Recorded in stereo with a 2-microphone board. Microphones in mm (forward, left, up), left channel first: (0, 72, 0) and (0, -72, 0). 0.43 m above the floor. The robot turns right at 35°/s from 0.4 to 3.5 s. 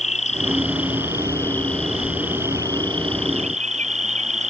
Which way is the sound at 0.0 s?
125° left.